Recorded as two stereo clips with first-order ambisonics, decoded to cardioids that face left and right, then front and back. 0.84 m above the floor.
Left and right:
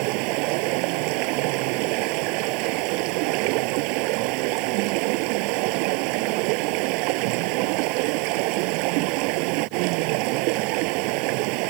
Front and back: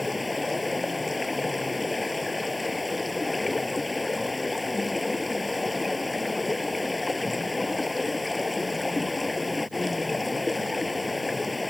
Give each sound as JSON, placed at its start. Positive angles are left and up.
{"t": 0.0, "sound": "running water", "azimuth_deg": -80}